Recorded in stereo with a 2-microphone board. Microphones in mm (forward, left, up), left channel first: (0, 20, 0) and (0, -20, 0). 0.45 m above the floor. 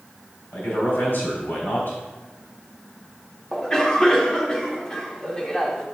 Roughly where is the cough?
Centre.